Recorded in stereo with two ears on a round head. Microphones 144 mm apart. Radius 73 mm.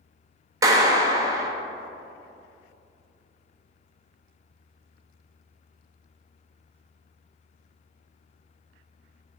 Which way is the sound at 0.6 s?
20° right (ahead or behind).